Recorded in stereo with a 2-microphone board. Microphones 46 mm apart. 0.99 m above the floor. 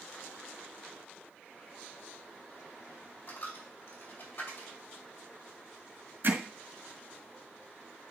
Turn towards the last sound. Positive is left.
turn(degrees=-60)  # may be behind; listen again after turning